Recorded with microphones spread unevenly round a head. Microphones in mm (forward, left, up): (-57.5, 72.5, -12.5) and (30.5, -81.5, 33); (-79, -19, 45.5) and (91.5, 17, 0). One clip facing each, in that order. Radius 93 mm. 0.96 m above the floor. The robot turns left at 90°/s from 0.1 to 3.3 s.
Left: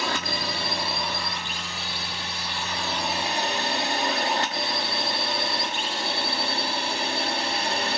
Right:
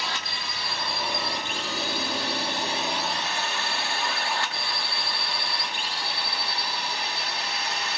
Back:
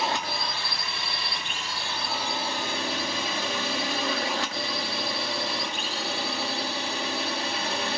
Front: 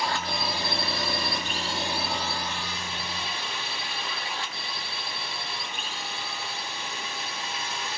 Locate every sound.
0.0 s a drone: 120° left; by 8.0 s 160° left